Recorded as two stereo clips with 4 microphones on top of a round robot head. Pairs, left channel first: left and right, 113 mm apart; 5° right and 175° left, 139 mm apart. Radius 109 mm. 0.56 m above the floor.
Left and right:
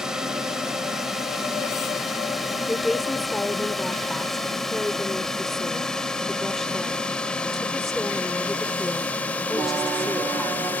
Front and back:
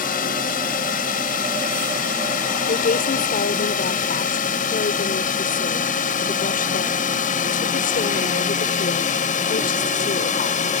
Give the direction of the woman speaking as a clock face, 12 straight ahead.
12 o'clock.